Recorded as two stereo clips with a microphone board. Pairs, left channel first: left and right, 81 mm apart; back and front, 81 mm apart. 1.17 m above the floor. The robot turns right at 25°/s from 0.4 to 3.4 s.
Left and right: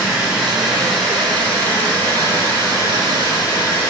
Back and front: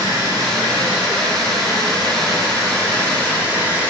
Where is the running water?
10° right, 2.0 m; by 3.9 s 65° left, 2.0 m.